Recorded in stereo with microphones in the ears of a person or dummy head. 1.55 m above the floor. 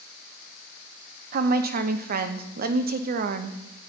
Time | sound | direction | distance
1.3 | a woman speaking | 50° right (ahead or behind) | 0.8 m